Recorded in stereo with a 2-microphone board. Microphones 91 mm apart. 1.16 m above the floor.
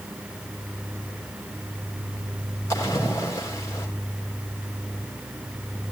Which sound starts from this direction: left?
A splash, at 2.7 s.